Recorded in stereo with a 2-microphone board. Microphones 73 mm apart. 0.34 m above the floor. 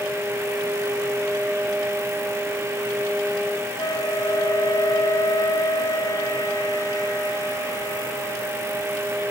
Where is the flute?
60° left (ahead or behind).